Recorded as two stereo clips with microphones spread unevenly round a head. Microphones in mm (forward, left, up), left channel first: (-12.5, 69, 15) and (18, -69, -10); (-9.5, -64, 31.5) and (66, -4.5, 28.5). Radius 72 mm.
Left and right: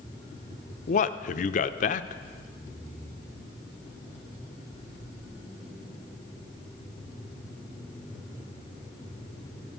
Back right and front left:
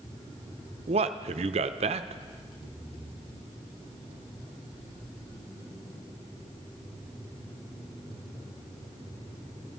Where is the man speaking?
60° left, 0.6 m.